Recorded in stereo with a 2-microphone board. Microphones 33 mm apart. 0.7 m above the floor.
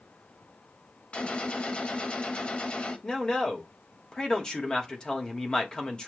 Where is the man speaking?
25° left (ahead or behind), 1.2 m.